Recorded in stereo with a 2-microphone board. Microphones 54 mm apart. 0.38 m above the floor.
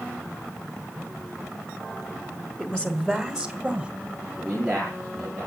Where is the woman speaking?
20° left (ahead or behind), 1.6 m; by 3.9 s 10° right (ahead or behind), 1.5 m.